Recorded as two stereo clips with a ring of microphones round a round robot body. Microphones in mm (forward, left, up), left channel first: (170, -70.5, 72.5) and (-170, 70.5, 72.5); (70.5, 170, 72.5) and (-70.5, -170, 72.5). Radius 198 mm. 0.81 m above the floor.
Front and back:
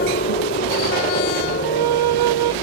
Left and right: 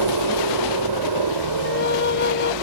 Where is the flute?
130° left.